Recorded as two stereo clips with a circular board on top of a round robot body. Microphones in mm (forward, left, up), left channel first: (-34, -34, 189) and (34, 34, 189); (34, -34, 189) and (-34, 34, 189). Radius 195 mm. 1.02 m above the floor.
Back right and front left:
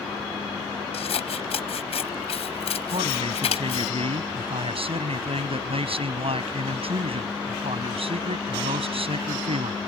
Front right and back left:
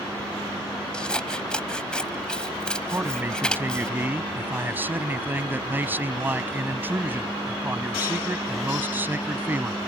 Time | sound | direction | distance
0.9 | scissors | 125° right | ?
2.9 | a man speaking | 65° left | ?